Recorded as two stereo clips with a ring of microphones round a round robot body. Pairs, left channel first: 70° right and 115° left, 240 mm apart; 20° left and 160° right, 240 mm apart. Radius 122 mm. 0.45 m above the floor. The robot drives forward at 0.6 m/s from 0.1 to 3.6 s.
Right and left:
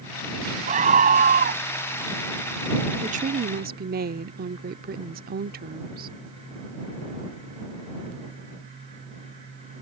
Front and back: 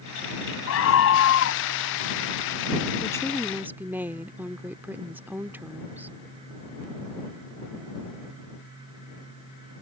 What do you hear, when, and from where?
0.7 s a scream: 50° left; by 1.6 s 60° left
3.0 s a woman speaking: 80° left; by 6.1 s 125° left